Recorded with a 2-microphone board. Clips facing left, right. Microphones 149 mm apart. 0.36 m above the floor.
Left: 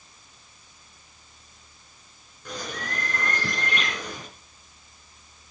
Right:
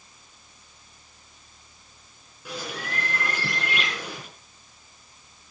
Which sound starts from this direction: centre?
A bird, at 2.5 s.